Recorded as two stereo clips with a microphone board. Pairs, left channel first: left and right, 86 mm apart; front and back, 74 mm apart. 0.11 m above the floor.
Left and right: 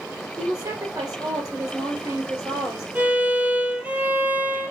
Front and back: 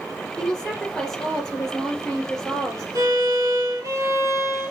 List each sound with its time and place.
0.4 s a woman speaking: 75° right, 2 m
3.0 s a violin: 160° right, 0.9 m